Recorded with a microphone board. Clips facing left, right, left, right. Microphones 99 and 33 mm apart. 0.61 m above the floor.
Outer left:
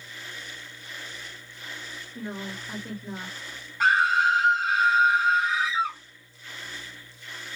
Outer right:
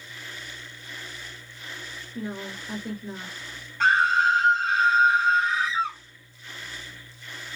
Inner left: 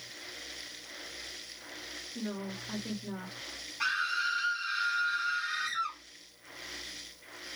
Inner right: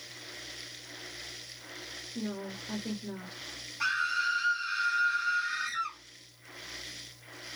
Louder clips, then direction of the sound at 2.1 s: Outer right 2 dB, inner right 1 dB; 5° right (ahead or behind).